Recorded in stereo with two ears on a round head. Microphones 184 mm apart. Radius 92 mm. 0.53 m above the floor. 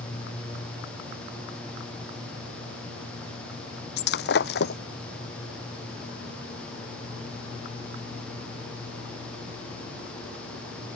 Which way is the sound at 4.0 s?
55° left (ahead or behind).